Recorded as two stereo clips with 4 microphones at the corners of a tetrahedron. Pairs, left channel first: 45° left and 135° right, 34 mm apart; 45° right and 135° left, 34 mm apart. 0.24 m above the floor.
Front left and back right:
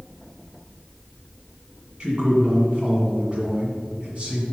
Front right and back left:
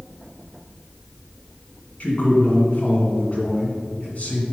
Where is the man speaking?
80° right, 1.9 m.